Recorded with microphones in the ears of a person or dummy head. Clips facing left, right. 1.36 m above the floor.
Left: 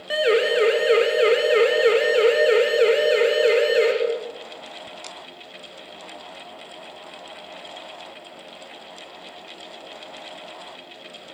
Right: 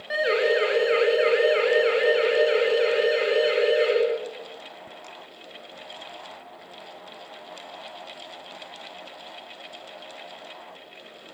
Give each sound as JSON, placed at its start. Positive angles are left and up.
{"t": 0.1, "sound": "a siren", "side_deg": 40, "distance_m": 4.5}